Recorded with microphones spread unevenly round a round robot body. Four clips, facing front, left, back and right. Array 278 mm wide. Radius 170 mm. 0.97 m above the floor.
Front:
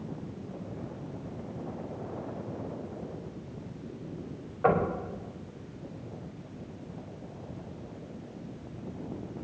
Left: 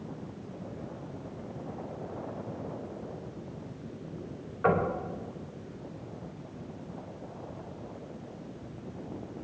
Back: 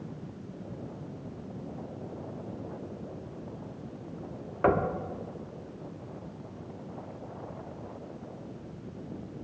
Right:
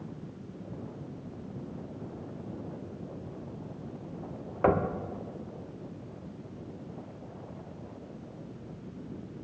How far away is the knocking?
About 1.9 m.